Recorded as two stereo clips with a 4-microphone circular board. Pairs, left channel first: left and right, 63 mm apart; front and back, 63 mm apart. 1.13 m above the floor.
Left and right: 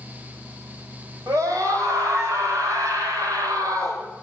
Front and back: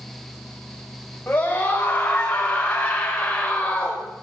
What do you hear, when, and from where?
1.3 s a scream: 60° right, 5.5 m; by 4.0 s 75° right, 4.5 m